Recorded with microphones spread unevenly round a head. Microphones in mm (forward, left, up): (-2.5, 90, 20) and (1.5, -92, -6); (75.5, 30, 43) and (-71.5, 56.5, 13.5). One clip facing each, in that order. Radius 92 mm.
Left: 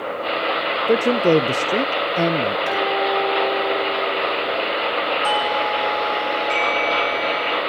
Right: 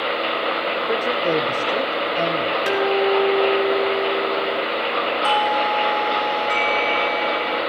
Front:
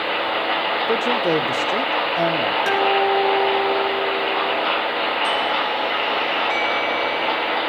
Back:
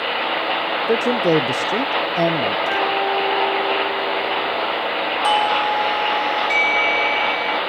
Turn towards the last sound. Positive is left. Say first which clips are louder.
# right 1 dB, back 4 dB
turn(degrees=-175)